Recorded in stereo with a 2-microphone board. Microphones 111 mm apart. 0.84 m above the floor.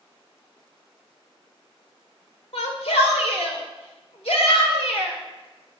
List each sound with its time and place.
2.5 s a shout: 80° left, 2.5 m